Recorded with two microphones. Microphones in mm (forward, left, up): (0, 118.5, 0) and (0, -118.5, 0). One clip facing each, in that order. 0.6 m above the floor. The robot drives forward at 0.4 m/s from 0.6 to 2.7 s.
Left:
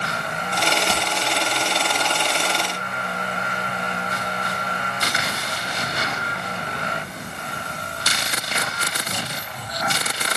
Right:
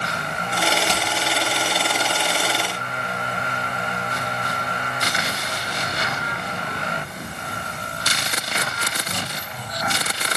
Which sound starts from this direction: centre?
Hammering, at 0.9 s.